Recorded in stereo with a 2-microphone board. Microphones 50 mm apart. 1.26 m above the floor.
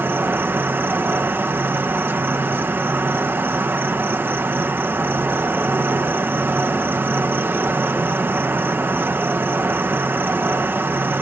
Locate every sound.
0.0 s an insect: 45° right (ahead or behind)